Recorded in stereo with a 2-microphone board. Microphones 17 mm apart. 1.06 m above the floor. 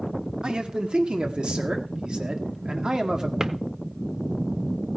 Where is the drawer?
30° right (ahead or behind), 0.8 m.